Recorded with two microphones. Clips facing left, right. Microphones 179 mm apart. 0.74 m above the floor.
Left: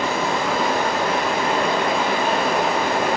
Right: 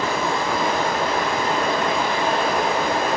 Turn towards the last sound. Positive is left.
turn(degrees=75)  # may be behind; listen again after turning